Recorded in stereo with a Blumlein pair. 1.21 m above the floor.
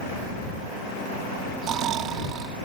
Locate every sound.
1.6 s snoring: 30° right